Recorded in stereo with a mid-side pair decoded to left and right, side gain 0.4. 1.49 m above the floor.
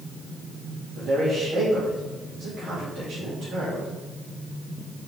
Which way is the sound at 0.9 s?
60° right.